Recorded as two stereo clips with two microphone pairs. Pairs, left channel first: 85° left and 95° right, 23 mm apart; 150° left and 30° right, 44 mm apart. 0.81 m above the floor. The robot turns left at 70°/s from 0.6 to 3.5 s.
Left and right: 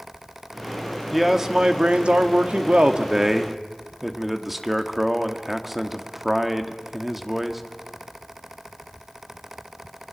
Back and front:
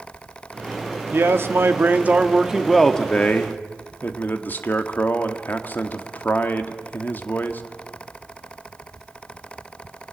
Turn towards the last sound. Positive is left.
turn(degrees=-175)